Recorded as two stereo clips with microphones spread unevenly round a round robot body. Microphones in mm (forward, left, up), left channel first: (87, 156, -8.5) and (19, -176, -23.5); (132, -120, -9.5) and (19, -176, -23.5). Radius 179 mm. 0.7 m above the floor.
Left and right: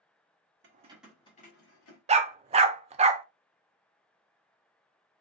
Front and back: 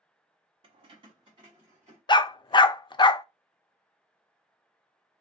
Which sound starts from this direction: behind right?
Keys jangling, at 0.6 s.